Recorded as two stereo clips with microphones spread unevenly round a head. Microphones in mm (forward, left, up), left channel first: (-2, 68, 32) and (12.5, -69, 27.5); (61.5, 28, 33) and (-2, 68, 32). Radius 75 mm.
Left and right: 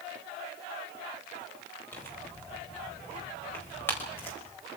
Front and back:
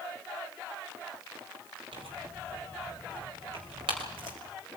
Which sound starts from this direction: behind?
Tearing paper, at 1.9 s.